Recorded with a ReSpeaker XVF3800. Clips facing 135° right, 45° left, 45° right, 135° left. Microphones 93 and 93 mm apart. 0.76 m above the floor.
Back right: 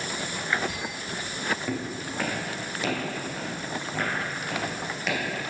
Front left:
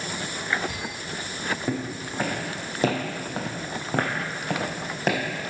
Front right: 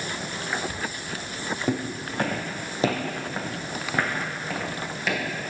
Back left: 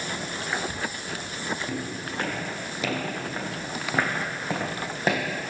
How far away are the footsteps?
About 2 m.